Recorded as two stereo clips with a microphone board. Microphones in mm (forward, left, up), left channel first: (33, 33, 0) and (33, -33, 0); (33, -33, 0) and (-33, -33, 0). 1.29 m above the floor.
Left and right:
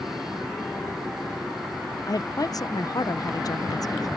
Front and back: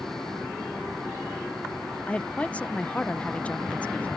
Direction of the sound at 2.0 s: 70° left.